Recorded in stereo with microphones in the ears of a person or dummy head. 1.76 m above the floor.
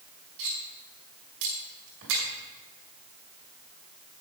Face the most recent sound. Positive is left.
turn(degrees=-65)  # may be behind; listen again after turning